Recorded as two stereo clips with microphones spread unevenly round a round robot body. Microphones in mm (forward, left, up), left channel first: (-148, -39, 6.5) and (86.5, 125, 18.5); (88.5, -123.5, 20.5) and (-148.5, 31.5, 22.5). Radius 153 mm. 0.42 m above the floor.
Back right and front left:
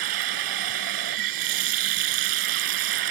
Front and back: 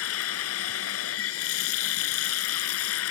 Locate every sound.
0.0 s running water: 15° left